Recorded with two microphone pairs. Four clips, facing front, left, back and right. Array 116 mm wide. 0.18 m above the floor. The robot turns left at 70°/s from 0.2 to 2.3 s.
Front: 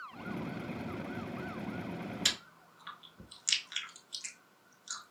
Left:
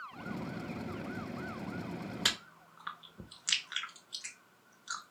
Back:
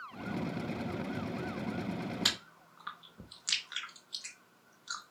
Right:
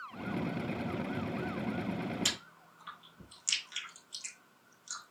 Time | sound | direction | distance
2.2 | chewing | 125° left | 0.6 m